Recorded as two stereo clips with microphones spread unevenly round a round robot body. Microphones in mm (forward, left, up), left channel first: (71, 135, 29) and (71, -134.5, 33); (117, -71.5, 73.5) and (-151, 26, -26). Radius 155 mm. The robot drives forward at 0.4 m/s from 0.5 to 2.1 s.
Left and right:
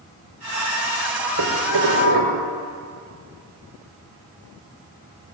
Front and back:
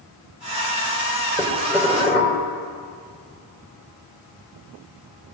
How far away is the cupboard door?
No cupboard door in this recording.